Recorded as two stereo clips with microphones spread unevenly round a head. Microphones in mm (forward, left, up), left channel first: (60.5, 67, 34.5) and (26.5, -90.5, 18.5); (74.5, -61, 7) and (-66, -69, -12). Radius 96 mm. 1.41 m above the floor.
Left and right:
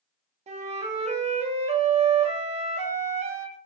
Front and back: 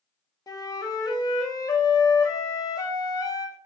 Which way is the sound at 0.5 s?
65° right.